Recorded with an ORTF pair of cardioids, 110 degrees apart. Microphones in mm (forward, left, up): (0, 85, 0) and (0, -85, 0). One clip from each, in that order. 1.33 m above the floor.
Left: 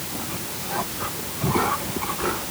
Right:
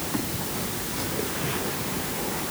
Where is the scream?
I don't hear a scream.